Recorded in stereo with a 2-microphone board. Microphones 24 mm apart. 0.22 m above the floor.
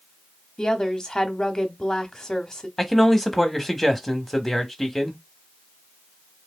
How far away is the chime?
I don't hear a chime.